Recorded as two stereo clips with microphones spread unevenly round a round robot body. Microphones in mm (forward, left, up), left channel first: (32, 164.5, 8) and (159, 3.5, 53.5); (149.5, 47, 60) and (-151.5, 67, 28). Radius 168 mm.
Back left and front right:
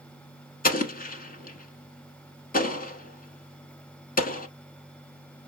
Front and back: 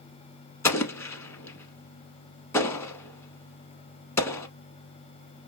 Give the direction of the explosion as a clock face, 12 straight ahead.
9 o'clock.